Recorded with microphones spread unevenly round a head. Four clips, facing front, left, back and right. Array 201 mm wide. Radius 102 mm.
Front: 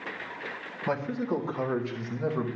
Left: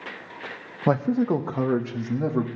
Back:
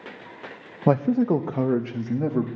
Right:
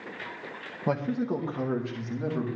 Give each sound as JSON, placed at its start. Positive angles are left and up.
{"t": 0.9, "sound": "a man speaking", "azimuth_deg": 155, "distance_m": 0.8}